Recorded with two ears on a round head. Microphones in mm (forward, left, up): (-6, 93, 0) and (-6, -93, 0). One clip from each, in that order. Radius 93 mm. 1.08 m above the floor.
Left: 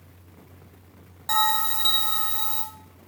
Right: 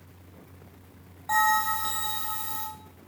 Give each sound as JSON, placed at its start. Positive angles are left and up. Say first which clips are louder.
{"t": 1.3, "sound": "a bell", "louder": "even", "side_deg": 70, "distance_m": 1.8}